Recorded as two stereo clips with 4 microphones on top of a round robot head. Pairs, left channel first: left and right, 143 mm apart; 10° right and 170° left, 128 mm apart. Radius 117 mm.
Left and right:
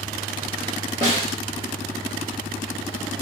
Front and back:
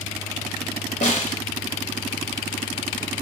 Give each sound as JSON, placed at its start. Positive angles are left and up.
{"t": 1.0, "sound": "a snare drum", "azimuth_deg": -25, "distance_m": 1.3}